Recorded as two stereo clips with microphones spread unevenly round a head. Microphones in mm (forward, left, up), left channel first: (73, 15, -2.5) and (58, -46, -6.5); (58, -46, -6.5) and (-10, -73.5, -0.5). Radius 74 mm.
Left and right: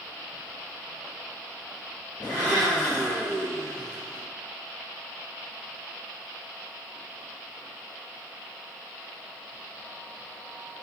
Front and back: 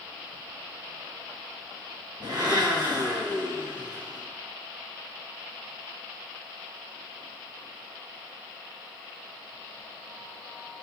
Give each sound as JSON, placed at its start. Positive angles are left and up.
{"t": 2.2, "sound": "a blender", "azimuth_deg": 145, "distance_m": 2.5}